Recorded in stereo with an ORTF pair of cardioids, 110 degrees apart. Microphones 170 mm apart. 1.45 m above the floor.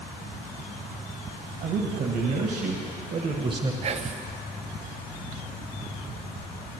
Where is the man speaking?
70° right, 1.5 m; by 3.7 s 25° right, 0.8 m.